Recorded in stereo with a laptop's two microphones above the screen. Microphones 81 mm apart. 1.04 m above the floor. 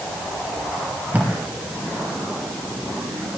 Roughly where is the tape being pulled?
Centre.